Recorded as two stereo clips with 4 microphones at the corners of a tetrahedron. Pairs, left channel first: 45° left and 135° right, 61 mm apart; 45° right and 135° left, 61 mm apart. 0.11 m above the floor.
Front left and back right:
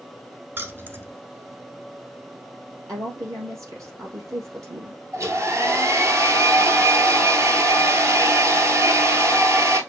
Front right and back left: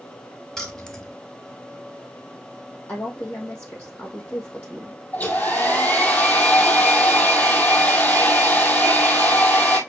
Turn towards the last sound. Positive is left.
turn(degrees=-105)